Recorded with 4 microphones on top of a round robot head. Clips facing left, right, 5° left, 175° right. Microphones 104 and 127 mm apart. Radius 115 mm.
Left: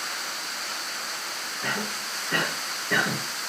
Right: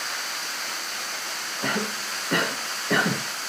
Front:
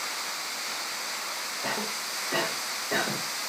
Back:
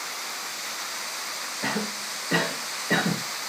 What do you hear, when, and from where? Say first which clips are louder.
1.6 s a cough: right 4 dB, back 4 dB; 145° right, 1.8 m